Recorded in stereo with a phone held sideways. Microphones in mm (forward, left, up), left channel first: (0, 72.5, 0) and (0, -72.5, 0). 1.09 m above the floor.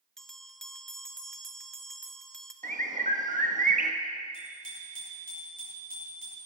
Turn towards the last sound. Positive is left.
turn(degrees=-75)  # may be behind; listen again after turning